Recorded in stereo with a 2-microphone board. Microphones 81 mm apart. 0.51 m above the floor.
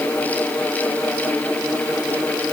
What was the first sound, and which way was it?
Only background noise.